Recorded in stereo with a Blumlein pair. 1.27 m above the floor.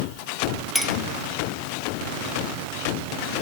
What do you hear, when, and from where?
0.8 s a clink: 5° right, 1.2 m